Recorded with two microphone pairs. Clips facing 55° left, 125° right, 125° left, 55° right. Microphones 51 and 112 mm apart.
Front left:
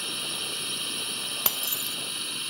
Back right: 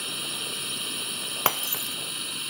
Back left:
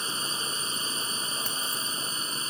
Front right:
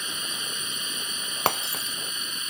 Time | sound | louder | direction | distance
0.0 | a drone | even, back left 2 dB | 150° left | ?
1.5 | breaking glass | back right 5 dB, front right 8 dB | 70° right | ?